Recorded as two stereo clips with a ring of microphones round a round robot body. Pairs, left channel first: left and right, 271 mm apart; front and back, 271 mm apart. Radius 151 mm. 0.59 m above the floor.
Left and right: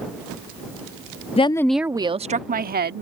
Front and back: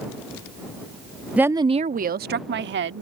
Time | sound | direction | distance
1.4 | a woman speaking | 100° left | ?